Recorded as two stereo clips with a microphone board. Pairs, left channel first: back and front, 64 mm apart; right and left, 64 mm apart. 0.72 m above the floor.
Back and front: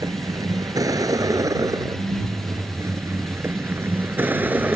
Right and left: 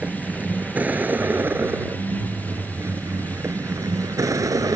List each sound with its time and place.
0.0 s a vehicle: 20° left; by 4.8 s 65° left